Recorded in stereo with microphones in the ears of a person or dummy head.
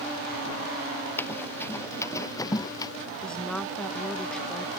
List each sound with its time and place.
1.2 s running footsteps: 10° left (ahead or behind); by 2.9 s 20° left (ahead or behind)
3.2 s a woman speaking: 5° left (ahead or behind)